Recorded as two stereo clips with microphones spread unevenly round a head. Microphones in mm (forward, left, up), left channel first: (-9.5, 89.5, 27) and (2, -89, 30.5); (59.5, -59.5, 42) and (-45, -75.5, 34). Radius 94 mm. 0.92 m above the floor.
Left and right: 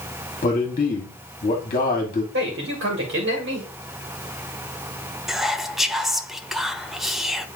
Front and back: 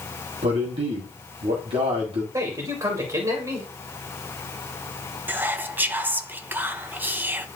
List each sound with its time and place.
0.4 s a man speaking: 155° left, 1.7 m
2.3 s a man speaking: 115° right, 2.5 m
5.3 s whispering: 175° right, 0.7 m